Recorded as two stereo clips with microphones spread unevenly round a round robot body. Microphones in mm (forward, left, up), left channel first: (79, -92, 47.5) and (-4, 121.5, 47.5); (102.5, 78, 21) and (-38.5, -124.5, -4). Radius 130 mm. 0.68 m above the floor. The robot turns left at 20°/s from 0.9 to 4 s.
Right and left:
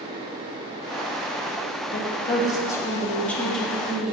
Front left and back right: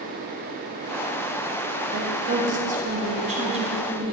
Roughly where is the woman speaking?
Behind right.